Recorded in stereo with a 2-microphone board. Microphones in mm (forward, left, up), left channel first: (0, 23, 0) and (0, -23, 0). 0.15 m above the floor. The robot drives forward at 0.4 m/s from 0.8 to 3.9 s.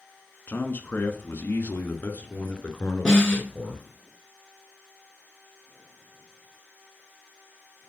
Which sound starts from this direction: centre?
A snare drum, at 3.0 s.